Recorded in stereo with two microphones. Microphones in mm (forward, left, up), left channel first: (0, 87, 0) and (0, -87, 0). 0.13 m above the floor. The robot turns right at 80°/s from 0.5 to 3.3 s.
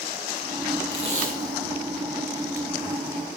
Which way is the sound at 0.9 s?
25° right (ahead or behind).